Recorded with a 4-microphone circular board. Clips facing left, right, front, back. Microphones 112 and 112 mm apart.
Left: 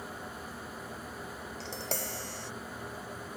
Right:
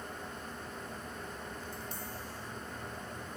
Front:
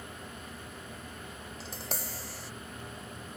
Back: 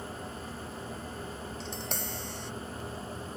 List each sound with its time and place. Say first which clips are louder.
1.6 s tapping: left 5 dB, even; 85° left